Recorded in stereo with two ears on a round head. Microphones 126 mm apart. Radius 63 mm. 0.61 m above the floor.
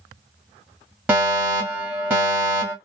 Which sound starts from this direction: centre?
A fire alarm, at 1.1 s.